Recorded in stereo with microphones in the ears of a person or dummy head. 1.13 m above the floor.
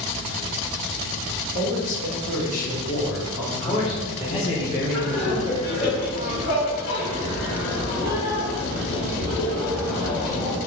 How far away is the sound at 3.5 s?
About 0.9 m.